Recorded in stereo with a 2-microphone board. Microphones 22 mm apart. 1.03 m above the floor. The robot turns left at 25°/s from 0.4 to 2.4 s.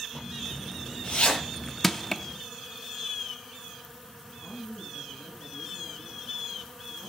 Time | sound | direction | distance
0.1 | a zipper | 45° left (ahead or behind) | 7 m
1.8 | crushing | 10° left (ahead or behind) | 0.6 m
4.4 | a man speaking | 70° left (ahead or behind) | 8 m